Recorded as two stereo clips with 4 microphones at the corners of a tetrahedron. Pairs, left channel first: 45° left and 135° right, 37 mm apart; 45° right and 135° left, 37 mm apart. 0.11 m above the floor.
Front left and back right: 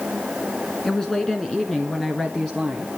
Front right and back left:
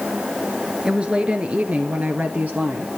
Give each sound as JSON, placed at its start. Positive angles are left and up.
{"t": 0.8, "sound": "a woman speaking", "azimuth_deg": 100, "distance_m": 1.1}